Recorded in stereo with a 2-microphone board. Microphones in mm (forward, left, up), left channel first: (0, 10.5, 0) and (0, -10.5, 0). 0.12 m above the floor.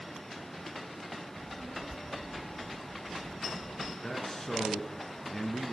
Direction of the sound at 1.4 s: 35° right (ahead or behind).